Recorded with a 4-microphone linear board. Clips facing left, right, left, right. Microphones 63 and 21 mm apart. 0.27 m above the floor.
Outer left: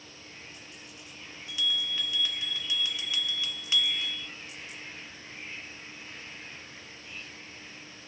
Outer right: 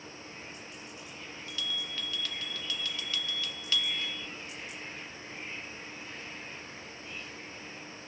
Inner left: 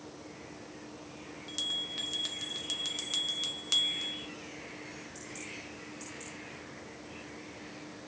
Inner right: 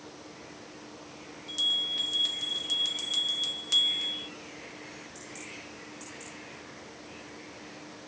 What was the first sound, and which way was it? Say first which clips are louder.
A bell: outer left 6 dB, inner right 7 dB; 15° left (ahead or behind).